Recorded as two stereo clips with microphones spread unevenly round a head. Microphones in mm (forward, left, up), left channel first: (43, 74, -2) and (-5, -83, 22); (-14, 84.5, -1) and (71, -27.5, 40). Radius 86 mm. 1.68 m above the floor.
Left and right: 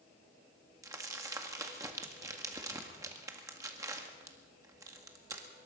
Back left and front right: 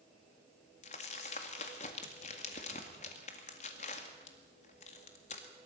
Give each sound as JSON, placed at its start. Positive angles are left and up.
{"t": 0.8, "sound": "crumpling", "azimuth_deg": -175, "distance_m": 1.8}